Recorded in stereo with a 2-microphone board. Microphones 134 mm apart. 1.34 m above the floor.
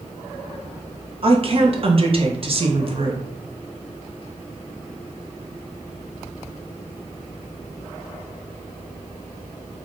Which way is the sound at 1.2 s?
45° right (ahead or behind).